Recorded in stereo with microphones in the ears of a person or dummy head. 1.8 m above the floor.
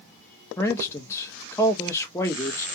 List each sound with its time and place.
0.6 s a man speaking: 10° left (ahead or behind), 0.7 m